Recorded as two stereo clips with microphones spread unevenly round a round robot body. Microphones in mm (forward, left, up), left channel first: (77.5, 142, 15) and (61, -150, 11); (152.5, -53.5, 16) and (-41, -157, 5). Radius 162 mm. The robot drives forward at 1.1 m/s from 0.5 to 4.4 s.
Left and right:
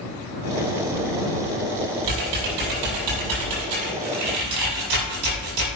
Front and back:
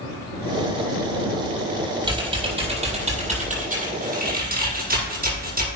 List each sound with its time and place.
2.0 s typing on a keyboard: 80° right, 7 m; by 5.7 s 105° right, 7 m